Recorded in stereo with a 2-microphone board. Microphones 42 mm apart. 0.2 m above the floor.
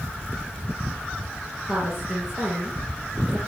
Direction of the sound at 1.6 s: 20° right (ahead or behind).